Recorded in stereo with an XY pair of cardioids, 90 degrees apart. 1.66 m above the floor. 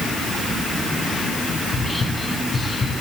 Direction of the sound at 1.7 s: 40° left.